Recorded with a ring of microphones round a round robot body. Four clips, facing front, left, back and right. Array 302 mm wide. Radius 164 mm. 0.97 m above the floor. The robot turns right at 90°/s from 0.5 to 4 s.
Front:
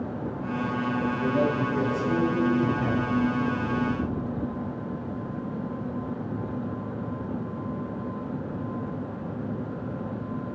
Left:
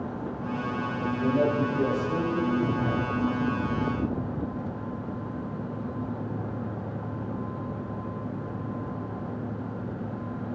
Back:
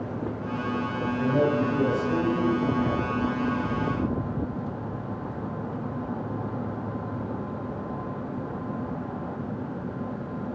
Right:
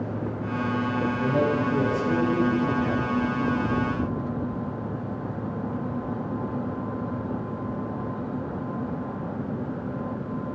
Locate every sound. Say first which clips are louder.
1.2 s a man speaking: left 1 dB, back 4 dB; 130° right, 9 m; by 3.1 s 45° left, 9 m